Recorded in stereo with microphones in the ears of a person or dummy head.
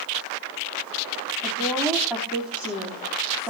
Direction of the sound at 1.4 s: 5° right (ahead or behind).